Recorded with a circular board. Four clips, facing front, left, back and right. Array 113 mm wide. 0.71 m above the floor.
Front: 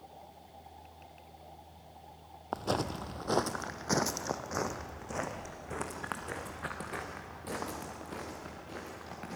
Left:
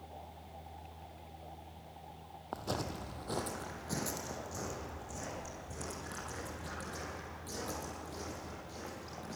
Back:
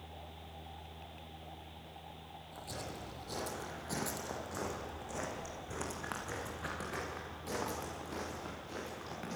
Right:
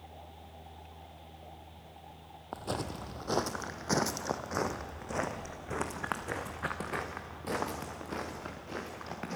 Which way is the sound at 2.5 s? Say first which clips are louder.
Right 2 dB, front 13 dB; 5° right.